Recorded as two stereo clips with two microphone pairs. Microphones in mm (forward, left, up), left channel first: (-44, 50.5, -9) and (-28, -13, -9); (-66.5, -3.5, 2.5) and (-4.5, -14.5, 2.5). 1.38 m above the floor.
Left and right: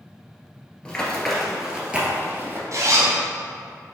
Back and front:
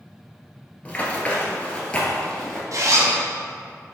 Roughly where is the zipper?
Ahead right.